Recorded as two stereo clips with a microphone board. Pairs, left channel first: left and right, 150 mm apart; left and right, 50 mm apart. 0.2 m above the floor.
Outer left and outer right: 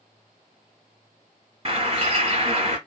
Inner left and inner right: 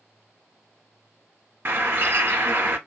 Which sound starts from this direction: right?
A bird, at 1.6 s.